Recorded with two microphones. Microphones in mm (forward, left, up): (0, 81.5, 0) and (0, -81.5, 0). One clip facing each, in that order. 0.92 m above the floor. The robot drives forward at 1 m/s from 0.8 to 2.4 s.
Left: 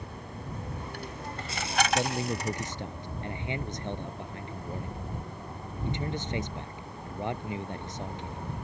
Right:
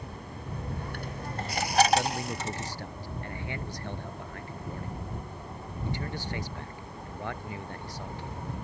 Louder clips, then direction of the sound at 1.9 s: Right 1 dB; 20° left (ahead or behind).